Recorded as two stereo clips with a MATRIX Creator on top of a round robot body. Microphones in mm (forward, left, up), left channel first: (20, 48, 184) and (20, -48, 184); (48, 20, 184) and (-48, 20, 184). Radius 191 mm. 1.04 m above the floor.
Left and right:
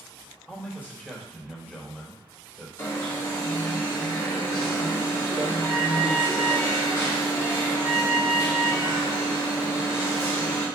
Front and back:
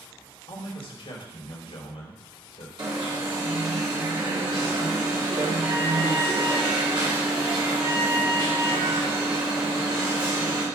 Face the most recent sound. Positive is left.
turn(degrees=150)